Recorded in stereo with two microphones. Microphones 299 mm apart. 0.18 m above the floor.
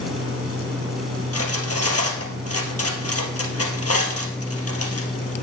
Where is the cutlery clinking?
55° left (ahead or behind), 2.5 m.